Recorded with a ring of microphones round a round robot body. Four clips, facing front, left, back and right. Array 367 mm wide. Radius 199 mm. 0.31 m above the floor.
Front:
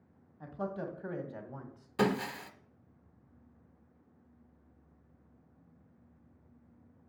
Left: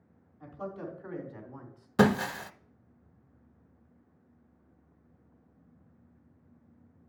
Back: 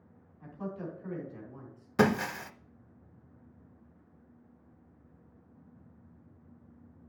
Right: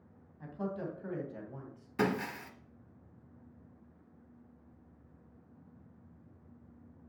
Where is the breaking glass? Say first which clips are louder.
Left 8 dB, back 4 dB; 120° left, 0.5 m.